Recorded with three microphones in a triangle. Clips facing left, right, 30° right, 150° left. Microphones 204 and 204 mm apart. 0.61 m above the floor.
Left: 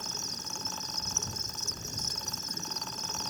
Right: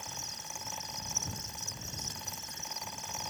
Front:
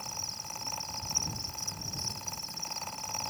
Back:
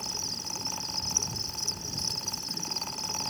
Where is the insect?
140° left.